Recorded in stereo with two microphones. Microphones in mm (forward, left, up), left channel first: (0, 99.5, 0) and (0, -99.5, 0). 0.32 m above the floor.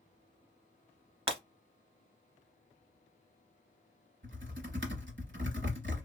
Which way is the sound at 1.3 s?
30° right (ahead or behind).